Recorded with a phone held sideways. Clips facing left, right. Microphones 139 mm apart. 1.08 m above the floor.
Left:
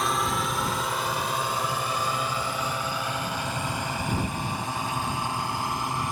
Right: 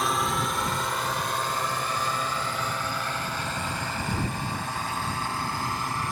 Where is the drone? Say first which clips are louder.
Even; centre (ahead or behind); by 6.1 s 15° left (ahead or behind).